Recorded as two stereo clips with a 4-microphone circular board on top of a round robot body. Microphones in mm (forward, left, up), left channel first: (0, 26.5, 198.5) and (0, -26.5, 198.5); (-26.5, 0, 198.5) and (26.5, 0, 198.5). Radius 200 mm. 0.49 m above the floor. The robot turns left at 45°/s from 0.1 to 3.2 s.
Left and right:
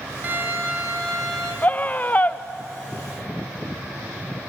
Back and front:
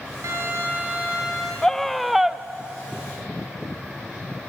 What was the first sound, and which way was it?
A violin, 30° right.